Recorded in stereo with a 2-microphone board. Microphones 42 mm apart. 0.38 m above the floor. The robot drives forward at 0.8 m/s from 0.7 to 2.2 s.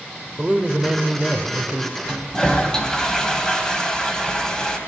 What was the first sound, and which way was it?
A man speaking, 25° right (ahead or behind).